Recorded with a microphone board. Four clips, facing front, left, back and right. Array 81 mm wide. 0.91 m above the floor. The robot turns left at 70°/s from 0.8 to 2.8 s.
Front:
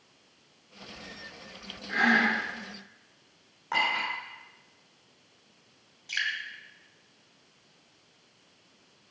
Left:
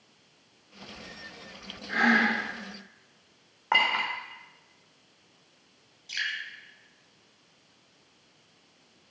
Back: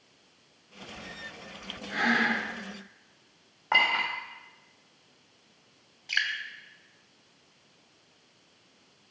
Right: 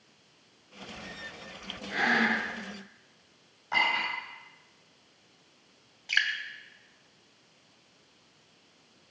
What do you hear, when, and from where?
1.9 s breathing: 75° left, 4 m; by 2.4 s 35° left, 4 m
3.7 s a clink: 110° left, 2 m
6.1 s dripping: 110° right, 1.1 m